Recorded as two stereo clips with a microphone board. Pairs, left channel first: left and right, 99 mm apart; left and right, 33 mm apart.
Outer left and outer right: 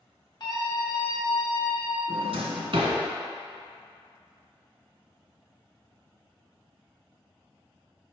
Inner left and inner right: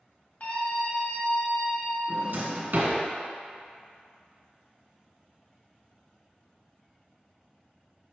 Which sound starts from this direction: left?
A scream, at 0.4 s.